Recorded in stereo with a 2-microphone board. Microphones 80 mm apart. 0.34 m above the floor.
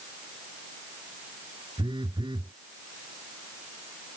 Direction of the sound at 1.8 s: 75° right (ahead or behind).